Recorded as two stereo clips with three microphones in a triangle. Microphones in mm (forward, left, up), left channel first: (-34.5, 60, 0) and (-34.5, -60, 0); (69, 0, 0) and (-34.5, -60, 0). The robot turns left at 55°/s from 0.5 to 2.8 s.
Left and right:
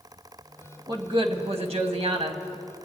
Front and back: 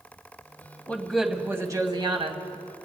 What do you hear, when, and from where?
0.9 s a woman speaking: 45° right, 1.7 m; by 2.4 s 130° right, 1.7 m